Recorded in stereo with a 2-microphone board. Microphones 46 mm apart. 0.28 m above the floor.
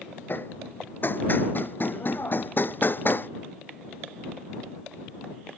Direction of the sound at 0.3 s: 45° left (ahead or behind).